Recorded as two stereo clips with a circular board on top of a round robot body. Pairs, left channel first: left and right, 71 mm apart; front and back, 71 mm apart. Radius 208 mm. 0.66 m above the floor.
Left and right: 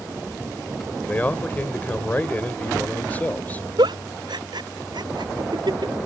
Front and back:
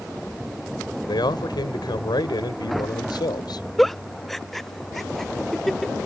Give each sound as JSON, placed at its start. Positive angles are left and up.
{"t": 1.1, "sound": "a man speaking", "azimuth_deg": 20}
{"t": 3.8, "sound": "a giggle", "azimuth_deg": -85}